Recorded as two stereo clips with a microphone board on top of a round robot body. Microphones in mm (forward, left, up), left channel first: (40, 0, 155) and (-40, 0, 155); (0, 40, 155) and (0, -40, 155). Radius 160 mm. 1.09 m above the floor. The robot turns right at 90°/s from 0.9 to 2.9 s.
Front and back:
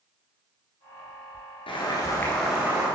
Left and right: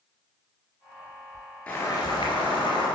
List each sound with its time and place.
1.7 s boiling: 10° left, 1.7 m; by 2.9 s 120° left, 1.7 m